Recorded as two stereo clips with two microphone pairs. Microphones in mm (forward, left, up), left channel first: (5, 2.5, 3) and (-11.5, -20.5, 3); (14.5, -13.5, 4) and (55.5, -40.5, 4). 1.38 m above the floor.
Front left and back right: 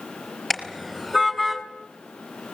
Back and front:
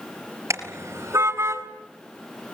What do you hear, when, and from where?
0.5 s a car horn: 35° right, 4.5 m; by 1.6 s 30° right, 3.5 m